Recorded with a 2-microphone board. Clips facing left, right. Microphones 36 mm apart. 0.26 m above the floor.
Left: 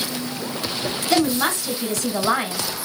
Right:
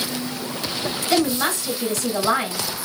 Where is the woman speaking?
15° right (ahead or behind), 1.2 m.